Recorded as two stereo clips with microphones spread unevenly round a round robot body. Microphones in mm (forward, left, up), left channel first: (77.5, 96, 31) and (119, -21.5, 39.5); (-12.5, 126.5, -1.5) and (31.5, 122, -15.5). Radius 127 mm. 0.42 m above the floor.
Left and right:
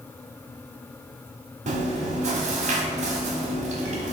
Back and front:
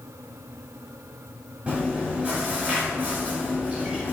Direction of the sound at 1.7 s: 70° right.